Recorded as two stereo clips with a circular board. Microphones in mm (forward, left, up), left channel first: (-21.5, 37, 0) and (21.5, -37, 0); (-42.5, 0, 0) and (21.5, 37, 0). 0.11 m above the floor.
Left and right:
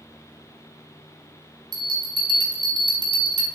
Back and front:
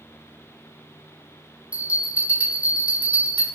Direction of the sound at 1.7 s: 40° right.